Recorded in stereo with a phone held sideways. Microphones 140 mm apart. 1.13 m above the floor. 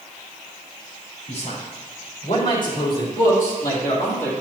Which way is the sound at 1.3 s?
55° left (ahead or behind).